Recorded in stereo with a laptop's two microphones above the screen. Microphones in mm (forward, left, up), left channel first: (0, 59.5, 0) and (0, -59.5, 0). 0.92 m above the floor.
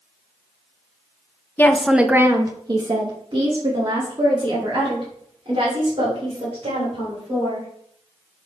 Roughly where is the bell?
No bell in this recording.